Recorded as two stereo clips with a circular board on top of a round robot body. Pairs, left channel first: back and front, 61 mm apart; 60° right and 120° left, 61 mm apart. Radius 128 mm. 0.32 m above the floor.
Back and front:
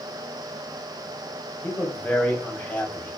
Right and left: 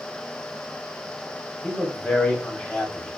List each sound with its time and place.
1.6 s a man speaking: 125° right, 1.6 m